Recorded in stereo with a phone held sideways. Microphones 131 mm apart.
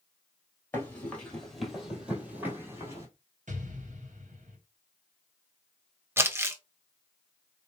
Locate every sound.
0.7 s running footsteps: 15° left (ahead or behind), 1.9 m; by 3.1 s 25° right (ahead or behind), 2.0 m
3.5 s an explosion: 70° right (ahead or behind), 1.2 m
6.2 s crumpling: 20° right (ahead or behind), 0.7 m